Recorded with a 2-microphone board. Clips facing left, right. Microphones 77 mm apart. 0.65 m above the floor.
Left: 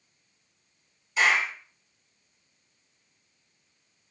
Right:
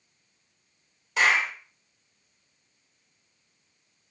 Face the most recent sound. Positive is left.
turn(degrees=-65)  # may be behind; listen again after turning